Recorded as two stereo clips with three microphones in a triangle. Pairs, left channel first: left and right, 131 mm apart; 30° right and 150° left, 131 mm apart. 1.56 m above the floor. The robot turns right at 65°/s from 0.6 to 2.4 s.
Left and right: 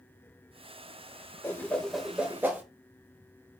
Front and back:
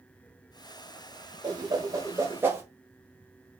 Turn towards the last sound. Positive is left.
turn(degrees=-155)